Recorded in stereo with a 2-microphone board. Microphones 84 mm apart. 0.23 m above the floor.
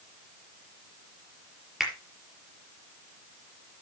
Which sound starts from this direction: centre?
A finger snap, at 1.8 s.